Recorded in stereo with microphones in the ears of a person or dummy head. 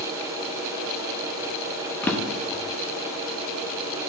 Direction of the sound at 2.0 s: 10° left (ahead or behind).